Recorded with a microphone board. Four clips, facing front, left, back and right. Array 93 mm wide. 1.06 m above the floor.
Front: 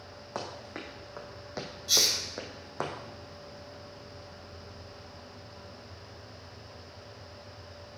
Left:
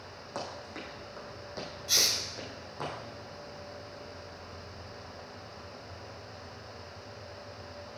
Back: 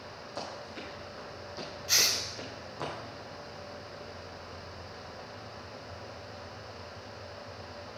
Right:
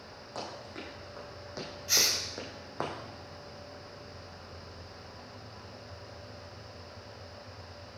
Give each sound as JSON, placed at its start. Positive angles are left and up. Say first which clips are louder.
{"t": 0.3, "sound": "running footsteps", "louder": "left 1 dB, front 2 dB", "azimuth_deg": 15, "distance_m": 3.5}
{"t": 1.9, "sound": "a hiss", "louder": "right 2 dB, front 1 dB", "azimuth_deg": -155, "distance_m": 1.0}